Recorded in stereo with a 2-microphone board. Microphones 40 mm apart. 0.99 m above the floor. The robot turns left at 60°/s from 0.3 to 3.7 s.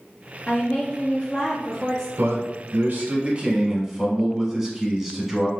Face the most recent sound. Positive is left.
turn(degrees=-170)